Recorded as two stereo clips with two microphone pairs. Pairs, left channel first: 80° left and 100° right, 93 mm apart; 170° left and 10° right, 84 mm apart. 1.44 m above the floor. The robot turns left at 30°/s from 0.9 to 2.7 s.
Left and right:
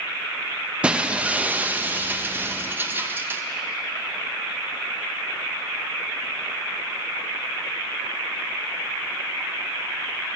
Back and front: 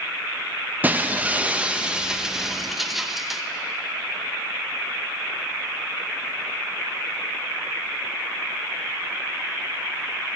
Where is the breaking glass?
45° right, 0.7 m; by 3.4 s 100° right, 0.7 m.